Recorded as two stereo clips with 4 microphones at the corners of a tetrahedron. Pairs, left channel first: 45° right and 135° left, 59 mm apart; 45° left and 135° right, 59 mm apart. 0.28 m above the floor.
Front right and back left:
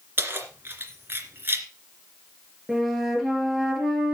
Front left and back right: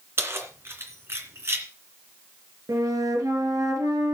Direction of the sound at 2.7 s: 140° right.